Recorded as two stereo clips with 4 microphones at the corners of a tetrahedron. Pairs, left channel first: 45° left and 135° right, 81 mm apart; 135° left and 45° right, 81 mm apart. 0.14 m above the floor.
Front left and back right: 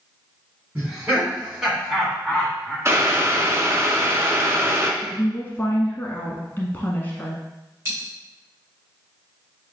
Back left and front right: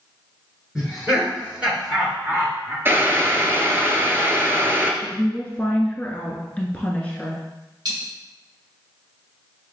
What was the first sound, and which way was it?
Laughter, 120° right.